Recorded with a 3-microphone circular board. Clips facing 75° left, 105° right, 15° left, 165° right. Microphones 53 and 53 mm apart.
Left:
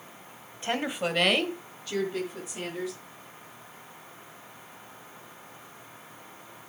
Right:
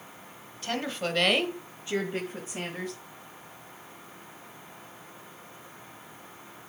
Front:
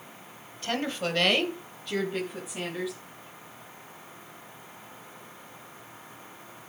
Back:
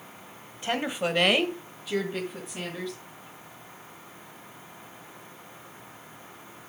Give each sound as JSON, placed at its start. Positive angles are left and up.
{"t": 0.6, "sound": "a woman speaking", "azimuth_deg": 130, "distance_m": 1.6}